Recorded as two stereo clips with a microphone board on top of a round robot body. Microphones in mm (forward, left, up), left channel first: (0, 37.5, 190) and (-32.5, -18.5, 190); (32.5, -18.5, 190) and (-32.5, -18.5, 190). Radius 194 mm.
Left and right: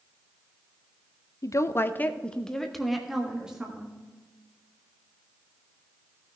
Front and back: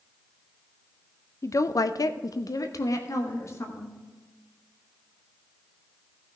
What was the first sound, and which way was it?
A woman speaking, 35° left.